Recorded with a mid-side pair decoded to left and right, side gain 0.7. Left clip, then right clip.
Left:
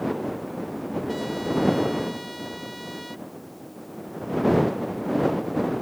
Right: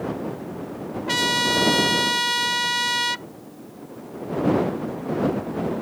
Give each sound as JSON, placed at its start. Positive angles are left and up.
{"t": 1.1, "sound": "a trumpet", "azimuth_deg": -65}